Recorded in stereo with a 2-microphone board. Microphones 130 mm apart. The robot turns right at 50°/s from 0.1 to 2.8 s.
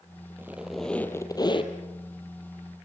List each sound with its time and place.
0.4 s a squeak: 20° right, 2.5 m; by 1.7 s 45° left, 2.5 m